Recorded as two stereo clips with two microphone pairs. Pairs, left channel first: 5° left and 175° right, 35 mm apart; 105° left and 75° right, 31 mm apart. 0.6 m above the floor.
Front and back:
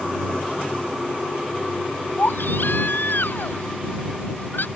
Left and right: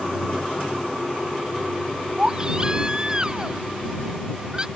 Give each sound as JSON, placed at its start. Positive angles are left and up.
{"t": 2.2, "sound": "a baby crying", "azimuth_deg": -10}